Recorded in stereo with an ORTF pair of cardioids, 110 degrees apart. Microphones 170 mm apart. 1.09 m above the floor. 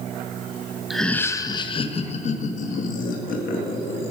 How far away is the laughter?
About 0.7 m.